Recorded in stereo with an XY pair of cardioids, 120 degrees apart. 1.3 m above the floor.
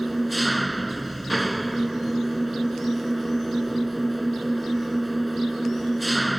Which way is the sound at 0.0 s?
5° right.